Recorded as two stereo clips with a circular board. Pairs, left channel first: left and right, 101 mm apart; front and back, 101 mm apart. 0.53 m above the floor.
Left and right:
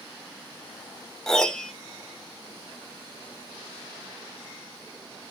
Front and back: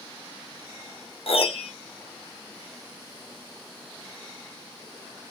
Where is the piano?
5° left, 0.8 m.